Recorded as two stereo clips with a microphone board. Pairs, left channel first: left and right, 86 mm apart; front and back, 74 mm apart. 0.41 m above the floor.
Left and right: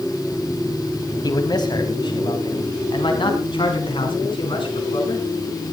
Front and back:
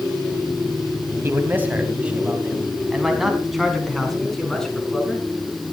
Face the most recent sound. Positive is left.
turn(degrees=80)